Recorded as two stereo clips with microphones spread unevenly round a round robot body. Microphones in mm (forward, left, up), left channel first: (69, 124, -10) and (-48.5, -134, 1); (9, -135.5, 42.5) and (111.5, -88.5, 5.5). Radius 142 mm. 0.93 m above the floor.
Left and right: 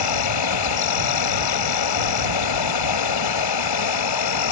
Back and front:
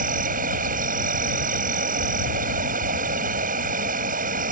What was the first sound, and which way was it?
An insect, 55° left.